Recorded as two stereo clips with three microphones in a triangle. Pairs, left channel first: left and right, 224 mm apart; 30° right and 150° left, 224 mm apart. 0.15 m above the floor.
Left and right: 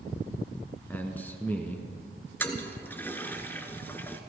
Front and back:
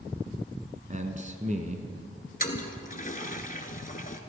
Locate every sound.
0.9 s a man speaking: 165° left, 1.4 m
2.4 s a toilet flushing: 10° left, 1.1 m